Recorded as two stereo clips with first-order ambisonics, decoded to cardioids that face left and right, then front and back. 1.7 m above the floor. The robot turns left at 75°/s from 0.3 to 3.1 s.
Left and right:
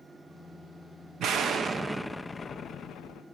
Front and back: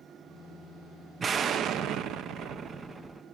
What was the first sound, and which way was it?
An explosion, 120° right.